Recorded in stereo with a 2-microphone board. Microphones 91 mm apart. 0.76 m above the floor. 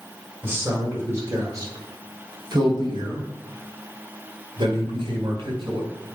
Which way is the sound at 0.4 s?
30° right (ahead or behind).